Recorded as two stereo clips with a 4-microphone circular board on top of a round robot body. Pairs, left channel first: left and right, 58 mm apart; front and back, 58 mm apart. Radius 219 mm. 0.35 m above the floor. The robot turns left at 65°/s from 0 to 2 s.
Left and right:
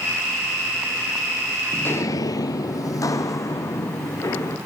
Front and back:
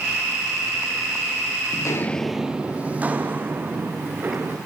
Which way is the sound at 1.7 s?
30° left.